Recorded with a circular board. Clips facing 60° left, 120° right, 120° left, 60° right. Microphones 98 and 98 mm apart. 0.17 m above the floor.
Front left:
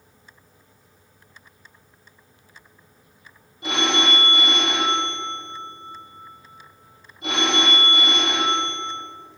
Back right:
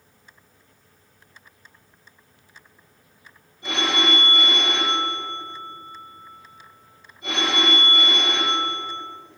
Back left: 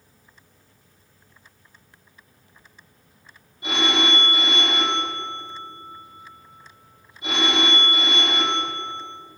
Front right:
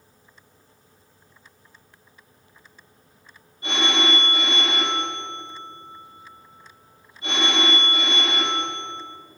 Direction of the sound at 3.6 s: 45° left.